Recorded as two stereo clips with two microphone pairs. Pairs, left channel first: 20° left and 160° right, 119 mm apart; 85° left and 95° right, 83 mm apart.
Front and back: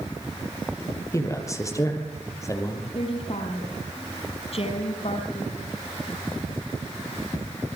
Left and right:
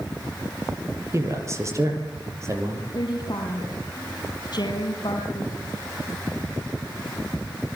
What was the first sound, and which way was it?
A man speaking, 45° right.